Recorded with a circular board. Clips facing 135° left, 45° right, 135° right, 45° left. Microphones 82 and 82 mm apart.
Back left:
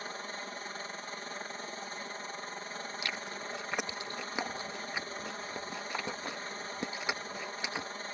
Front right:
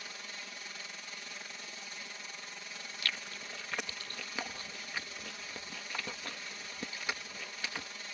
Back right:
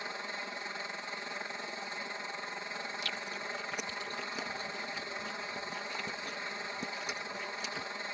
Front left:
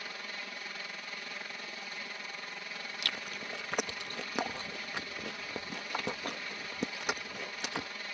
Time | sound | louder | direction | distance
0.0 | a helicopter | back left 7 dB, back right 3 dB | 170° left | ?
3.0 | chewing | even, back right 1 dB | 65° left | ?